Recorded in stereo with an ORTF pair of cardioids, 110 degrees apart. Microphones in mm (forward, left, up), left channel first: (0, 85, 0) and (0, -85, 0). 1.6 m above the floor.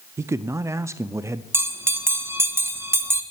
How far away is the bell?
About 1.3 m.